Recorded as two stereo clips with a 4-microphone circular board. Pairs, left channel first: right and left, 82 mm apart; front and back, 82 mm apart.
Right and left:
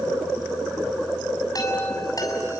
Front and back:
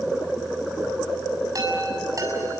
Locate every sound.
1.6 s a chime: 135° right, 6.5 m